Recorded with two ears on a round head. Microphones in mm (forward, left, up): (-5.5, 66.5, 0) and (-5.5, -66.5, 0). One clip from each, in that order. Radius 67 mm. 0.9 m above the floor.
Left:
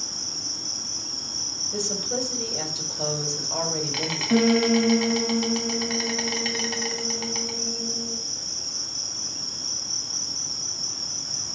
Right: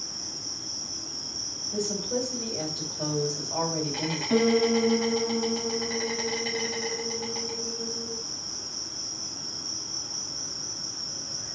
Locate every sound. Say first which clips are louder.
0.0 s an insect: left 5 dB; 60° left (ahead or behind), 2.5 m
1.7 s a woman speaking: left 2 dB; 70° left (ahead or behind), 5 m
4.3 s a piano: left 1 dB; 20° left (ahead or behind), 1.8 m